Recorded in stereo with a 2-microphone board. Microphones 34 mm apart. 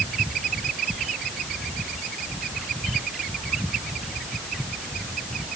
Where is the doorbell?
I don't hear a doorbell.